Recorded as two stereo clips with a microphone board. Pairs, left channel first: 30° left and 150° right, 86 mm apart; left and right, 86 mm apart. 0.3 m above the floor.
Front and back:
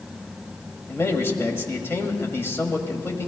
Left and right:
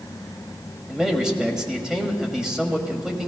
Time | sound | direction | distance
0.9 | a man speaking | 10° right | 1.6 m